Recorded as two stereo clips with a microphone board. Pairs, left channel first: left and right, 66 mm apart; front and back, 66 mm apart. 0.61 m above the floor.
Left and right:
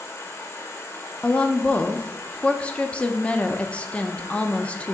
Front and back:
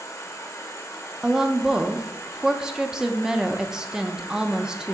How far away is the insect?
About 1.3 m.